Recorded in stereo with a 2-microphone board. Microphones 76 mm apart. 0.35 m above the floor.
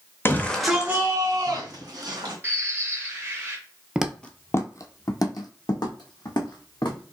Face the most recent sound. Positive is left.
turn(degrees=75)  # may be behind; listen again after turning